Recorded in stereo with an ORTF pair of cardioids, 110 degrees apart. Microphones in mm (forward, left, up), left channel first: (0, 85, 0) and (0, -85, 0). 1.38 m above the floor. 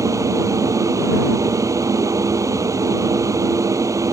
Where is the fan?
15° right.